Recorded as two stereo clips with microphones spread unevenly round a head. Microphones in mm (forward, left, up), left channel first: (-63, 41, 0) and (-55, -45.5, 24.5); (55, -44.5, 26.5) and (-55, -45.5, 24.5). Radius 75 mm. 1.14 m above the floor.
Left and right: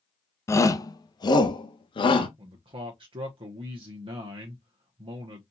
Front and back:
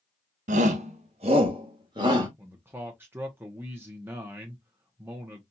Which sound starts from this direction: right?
A man speaking, at 2.4 s.